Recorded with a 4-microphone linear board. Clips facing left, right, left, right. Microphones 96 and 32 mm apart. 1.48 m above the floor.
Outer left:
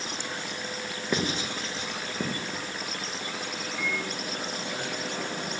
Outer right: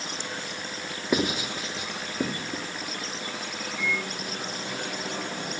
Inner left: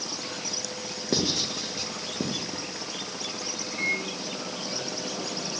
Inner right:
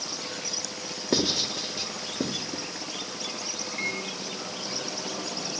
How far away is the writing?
About 1.8 m.